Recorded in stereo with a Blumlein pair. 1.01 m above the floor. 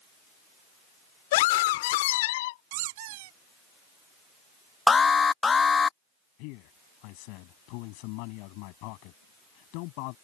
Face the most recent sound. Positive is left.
turn(degrees=45)